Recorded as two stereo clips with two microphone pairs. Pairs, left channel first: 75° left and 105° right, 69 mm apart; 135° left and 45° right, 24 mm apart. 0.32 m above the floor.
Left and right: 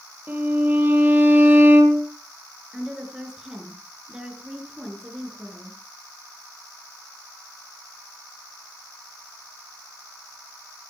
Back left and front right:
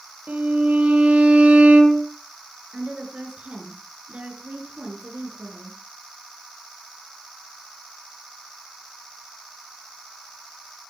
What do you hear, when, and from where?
0.3 s a violin: 40° right, 5.5 m
2.7 s a woman speaking: 25° right, 5 m